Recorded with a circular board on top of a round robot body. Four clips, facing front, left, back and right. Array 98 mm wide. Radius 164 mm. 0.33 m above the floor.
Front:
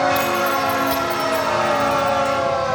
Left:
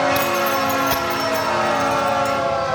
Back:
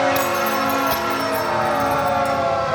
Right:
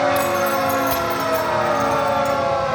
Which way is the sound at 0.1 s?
120° left.